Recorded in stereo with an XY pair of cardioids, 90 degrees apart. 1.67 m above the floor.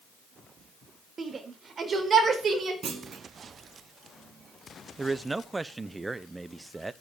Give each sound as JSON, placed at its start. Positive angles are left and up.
{"t": 1.2, "sound": "a shout", "azimuth_deg": -45, "distance_m": 4.5}
{"t": 2.8, "sound": "a clunk", "azimuth_deg": -50, "distance_m": 3.0}
{"t": 5.0, "sound": "a man speaking", "azimuth_deg": -20, "distance_m": 1.0}